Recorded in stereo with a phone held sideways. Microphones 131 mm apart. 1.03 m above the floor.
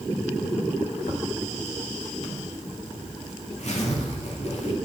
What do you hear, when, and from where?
1.0 s a zipper: 55° left (ahead or behind), 2.5 m